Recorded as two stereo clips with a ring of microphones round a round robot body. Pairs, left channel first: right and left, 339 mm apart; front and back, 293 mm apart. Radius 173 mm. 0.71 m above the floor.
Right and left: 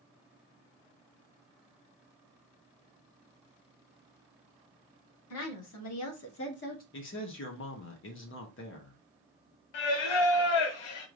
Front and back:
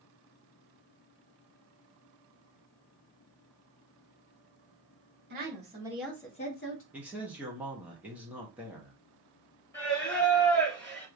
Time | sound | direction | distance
5.3 | a woman speaking | 130° right | 1.6 m
6.9 | a man speaking | 100° right | 1.1 m
9.7 | singing | 80° right | 0.9 m